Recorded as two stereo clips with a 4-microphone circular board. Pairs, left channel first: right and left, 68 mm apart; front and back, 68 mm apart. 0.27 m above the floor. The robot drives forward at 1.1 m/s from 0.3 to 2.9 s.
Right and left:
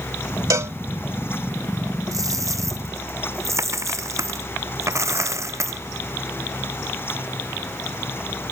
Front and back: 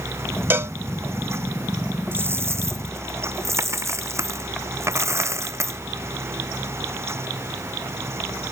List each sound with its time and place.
0.5 s a cowbell: 120° left; by 0.8 s 140° left
2.1 s a dropped coin: 120° left; by 5.8 s 130° left